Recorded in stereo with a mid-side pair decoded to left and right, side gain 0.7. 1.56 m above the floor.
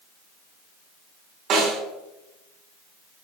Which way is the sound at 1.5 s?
55° right.